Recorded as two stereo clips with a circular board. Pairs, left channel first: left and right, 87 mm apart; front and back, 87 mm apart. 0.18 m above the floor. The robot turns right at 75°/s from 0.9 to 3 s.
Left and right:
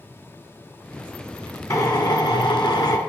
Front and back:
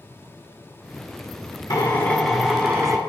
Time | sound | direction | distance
1.7 | a drill | 40° left | 1.3 m